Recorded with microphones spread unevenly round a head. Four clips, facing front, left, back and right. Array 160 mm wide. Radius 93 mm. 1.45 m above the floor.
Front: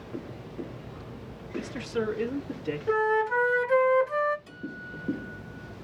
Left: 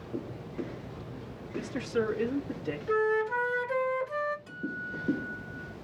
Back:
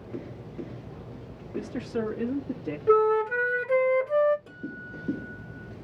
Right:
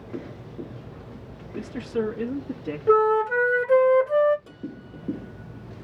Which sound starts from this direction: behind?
A man speaking, at 1.5 s.